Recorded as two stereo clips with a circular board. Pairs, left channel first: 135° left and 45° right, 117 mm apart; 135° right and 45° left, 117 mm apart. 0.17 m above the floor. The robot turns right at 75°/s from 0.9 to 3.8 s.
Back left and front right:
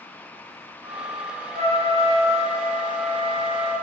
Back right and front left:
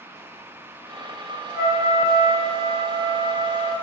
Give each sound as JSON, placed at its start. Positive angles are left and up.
{"t": 1.5, "sound": "a trumpet", "azimuth_deg": -45, "distance_m": 0.8}